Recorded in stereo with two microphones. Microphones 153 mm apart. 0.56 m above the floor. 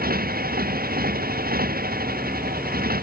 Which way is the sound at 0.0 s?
75° right (ahead or behind).